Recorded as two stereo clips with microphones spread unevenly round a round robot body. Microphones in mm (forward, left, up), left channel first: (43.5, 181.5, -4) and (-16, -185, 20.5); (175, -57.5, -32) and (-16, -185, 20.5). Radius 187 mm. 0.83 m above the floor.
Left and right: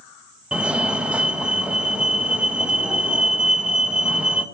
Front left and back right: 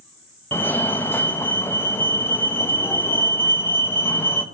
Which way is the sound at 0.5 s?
10° right.